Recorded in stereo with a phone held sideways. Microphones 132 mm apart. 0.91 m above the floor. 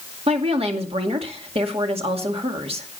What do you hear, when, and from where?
0.3 s a woman speaking: 50° right (ahead or behind), 2 m